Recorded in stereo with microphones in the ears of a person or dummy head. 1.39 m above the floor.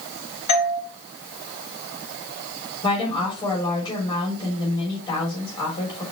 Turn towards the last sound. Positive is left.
turn(degrees=25)  # may be behind; listen again after turning